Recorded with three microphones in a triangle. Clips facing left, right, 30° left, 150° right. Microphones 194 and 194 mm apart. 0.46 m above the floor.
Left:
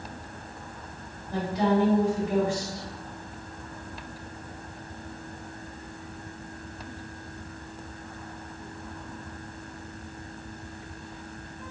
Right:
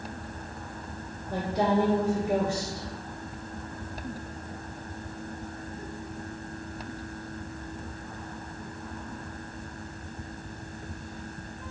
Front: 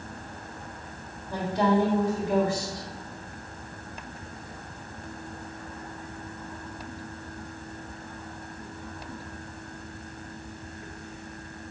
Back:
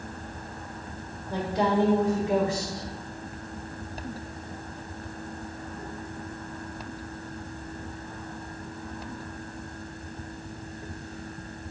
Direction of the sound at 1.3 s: 80° right.